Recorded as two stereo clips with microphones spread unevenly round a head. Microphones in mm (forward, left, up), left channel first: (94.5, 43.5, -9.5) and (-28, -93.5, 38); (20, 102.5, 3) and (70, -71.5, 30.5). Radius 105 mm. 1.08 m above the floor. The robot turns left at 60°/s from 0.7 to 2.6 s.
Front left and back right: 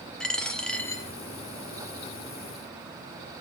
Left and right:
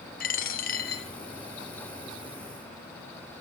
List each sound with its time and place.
0.2 s a dropped coin: 145° left, 1.3 m; by 1.1 s 125° left, 1.3 m